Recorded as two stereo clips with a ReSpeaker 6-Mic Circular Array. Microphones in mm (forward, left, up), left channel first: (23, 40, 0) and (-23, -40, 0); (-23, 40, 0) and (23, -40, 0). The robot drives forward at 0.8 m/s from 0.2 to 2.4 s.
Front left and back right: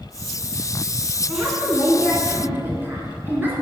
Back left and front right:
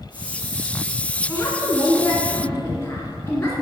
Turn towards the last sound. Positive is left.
turn(degrees=175)